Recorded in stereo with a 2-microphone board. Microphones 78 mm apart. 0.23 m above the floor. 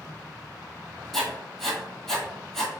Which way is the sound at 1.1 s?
5° left (ahead or behind).